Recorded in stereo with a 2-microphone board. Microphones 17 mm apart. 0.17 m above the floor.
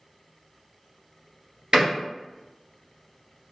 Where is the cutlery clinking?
No cutlery clinking in this recording.